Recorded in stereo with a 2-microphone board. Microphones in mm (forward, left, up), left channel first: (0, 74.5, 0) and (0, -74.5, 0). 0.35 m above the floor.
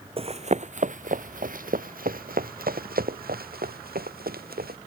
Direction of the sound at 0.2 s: 40° right (ahead or behind).